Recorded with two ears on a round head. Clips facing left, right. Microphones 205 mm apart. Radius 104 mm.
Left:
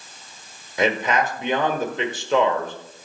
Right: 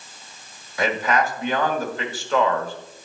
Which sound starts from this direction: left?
A man speaking, at 0.8 s.